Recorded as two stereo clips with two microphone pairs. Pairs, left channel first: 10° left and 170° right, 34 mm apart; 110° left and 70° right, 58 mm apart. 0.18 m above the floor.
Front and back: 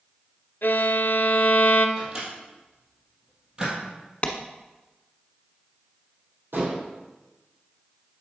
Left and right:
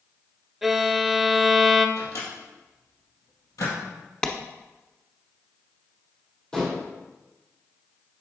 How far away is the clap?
About 1.0 m.